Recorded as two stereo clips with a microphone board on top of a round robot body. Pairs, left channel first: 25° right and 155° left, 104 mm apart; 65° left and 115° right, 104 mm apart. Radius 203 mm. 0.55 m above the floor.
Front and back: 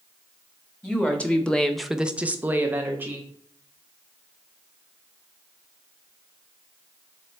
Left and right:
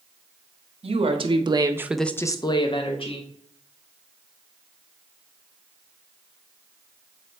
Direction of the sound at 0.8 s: 100° right.